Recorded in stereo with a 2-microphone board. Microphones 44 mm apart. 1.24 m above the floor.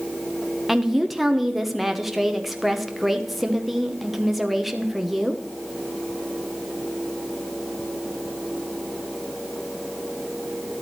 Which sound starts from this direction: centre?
A woman speaking, at 0.7 s.